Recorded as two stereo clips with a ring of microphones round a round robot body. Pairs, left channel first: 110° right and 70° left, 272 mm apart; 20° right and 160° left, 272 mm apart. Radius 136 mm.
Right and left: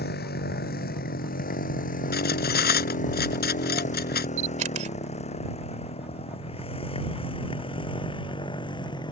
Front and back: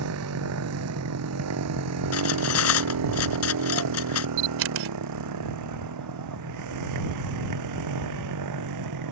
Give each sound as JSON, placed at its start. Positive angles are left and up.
{"t": 0.0, "sound": "a motorcycle", "azimuth_deg": -165}
{"t": 2.1, "sound": "cutlery clinking", "azimuth_deg": -60}
{"t": 4.4, "sound": "a camera shutter", "azimuth_deg": 125}